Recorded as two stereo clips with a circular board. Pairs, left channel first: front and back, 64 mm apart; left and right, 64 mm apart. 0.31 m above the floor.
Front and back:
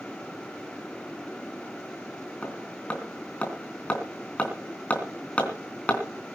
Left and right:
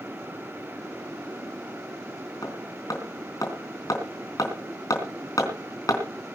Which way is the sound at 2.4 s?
70° left.